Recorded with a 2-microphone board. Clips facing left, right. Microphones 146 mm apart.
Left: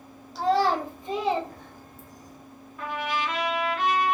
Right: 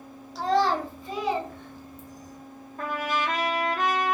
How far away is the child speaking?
About 1.1 m.